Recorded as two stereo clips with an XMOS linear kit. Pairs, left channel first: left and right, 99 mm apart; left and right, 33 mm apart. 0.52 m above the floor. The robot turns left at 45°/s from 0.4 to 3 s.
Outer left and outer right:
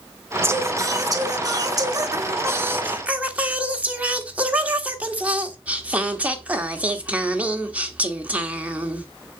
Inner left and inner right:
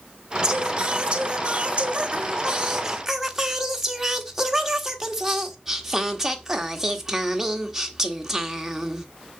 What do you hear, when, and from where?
0.4 s singing: 45° right, 1.4 m; by 9.1 s 160° right, 1.4 m